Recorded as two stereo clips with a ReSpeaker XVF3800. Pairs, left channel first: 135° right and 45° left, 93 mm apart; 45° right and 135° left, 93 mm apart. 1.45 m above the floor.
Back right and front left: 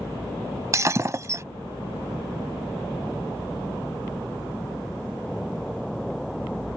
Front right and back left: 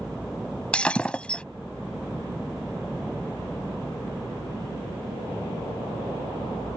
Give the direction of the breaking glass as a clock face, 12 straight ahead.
11 o'clock.